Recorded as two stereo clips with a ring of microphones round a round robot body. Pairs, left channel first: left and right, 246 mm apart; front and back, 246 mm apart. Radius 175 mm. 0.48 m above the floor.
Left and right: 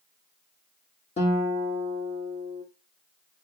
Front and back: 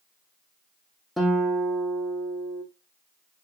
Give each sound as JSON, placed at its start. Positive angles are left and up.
{"t": 1.2, "sound": "a guitar", "azimuth_deg": 90, "distance_m": 0.6}